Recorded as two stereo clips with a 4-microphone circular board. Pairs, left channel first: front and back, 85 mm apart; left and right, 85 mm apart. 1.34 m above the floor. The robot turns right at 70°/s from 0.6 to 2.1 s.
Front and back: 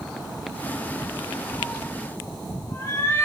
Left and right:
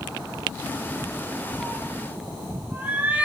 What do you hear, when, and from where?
1.6 s a cat meowing: 70° right, 1.4 m; by 3.2 s 35° right, 1.4 m